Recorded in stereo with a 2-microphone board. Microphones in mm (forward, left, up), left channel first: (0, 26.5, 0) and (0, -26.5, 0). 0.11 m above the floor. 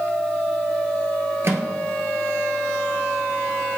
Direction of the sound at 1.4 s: 50° right (ahead or behind).